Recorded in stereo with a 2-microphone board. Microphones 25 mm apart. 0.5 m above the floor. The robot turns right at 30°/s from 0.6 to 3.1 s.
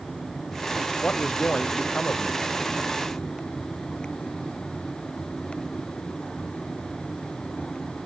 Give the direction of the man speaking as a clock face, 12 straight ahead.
10 o'clock.